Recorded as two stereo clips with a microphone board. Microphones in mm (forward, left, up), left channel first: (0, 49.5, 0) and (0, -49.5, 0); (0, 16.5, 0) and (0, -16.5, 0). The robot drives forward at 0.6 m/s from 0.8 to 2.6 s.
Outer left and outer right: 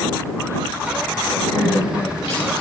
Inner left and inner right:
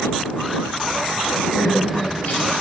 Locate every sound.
1.5 s crying: 75° left (ahead or behind), 1.8 m; by 2.6 s 80° left, 1.8 m